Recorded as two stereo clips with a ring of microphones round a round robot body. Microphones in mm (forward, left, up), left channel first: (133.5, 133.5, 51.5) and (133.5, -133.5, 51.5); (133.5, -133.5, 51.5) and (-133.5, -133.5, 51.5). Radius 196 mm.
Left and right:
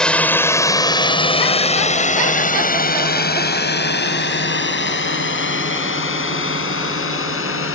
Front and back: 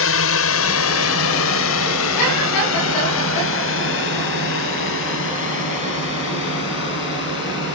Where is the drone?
5° left; by 7.8 s 55° left.